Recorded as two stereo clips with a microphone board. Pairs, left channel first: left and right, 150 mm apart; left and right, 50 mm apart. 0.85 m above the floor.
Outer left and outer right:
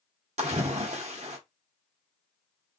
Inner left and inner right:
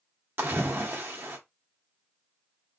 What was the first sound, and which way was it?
A splash, 45° right (ahead or behind).